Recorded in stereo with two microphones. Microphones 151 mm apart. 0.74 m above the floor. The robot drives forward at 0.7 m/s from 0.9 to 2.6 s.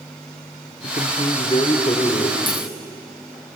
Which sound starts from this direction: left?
A man speaking, at 0.8 s.